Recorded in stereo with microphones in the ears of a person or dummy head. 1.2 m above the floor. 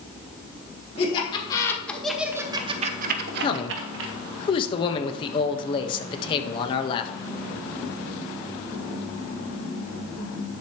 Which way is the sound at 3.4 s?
30° left (ahead or behind).